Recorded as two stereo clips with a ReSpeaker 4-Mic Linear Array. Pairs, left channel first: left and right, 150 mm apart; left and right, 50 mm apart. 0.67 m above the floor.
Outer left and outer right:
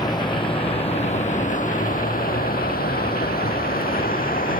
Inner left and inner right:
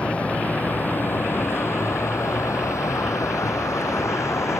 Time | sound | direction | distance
0.0 | a vehicle | 25° left (ahead or behind) | ?